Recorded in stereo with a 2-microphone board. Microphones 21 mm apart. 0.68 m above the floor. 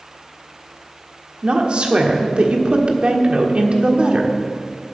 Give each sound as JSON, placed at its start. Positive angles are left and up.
{"t": 1.4, "sound": "a woman speaking", "side_deg": -50, "distance_m": 1.4}